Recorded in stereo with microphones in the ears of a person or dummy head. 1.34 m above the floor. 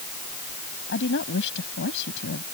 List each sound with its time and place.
0.9 s a woman speaking: 70° left (ahead or behind)